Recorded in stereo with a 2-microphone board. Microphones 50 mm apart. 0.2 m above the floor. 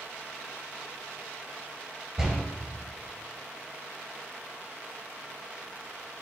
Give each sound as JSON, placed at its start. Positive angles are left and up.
{"t": 2.2, "sound": "a door slam", "side_deg": -10, "distance_m": 2.5}